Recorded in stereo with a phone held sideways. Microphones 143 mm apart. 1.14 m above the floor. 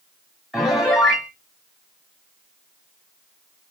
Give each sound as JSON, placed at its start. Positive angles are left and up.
{"t": 0.5, "sound": "a piano", "side_deg": -5, "distance_m": 1.2}